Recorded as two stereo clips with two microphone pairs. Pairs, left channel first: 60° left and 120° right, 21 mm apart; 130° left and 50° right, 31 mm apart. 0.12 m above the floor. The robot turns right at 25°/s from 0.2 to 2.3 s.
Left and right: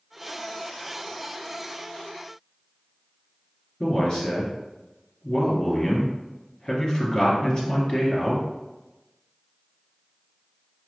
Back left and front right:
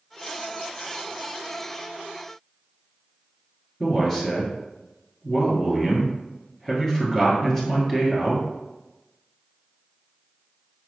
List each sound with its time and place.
3.8 s a man speaking: 55° left, 1.7 m